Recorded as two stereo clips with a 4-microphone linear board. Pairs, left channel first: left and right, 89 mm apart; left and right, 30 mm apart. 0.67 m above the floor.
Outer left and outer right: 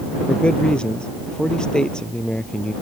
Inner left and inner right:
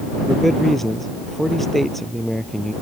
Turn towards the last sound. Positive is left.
turn(degrees=10)  # may be behind; listen again after turning